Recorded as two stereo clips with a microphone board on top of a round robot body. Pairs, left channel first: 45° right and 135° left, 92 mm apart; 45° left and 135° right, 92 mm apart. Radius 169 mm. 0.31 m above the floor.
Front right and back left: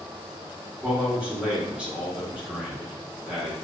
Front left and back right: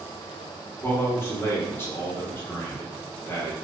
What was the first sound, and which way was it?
A man speaking, 70° left.